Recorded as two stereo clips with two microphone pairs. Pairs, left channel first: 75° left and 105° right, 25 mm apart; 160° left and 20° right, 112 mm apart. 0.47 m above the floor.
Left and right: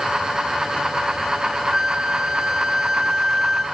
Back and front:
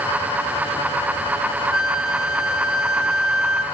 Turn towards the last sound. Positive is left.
turn(degrees=-95)